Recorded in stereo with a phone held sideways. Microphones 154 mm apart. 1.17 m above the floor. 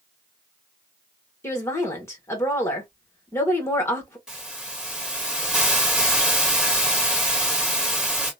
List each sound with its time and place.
1.4 s a woman speaking: 15° left (ahead or behind), 1.3 m
4.3 s a hiss: 5° right (ahead or behind), 1.6 m